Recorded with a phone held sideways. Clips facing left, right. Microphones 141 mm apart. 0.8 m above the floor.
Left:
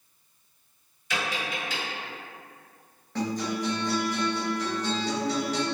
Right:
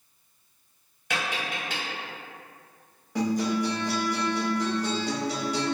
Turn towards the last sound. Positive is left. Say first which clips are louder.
# right 4 dB
turn(degrees=-10)  # may be behind; listen again after turning